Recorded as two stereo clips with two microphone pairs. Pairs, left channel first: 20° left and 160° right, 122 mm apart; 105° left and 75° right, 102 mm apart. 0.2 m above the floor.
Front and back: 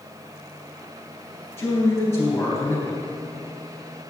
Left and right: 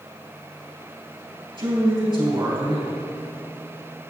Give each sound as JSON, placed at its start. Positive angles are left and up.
{"t": 1.6, "sound": "a man speaking", "azimuth_deg": -45, "distance_m": 3.0}